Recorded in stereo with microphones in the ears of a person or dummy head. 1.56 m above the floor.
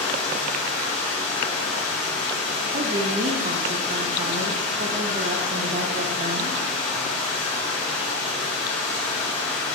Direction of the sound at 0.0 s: 5° left (ahead or behind).